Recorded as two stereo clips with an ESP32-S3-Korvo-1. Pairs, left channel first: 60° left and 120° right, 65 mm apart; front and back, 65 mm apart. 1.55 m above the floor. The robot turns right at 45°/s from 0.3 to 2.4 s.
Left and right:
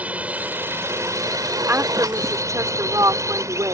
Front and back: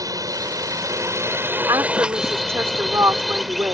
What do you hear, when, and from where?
0.0 s a drone: 175° left; by 3.7 s 90° right
1.7 s a woman speaking: 175° right; by 3.7 s 140° right